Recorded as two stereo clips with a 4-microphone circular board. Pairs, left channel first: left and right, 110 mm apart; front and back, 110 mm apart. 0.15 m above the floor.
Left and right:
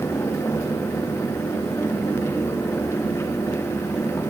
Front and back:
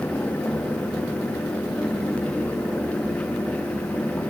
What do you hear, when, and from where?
Only background noise.